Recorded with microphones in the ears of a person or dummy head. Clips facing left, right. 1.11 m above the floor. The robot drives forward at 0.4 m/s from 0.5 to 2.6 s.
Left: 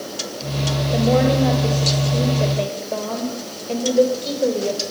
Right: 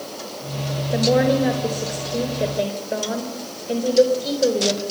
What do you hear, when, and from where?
0.9 s a woman speaking: 10° right (ahead or behind), 4.5 m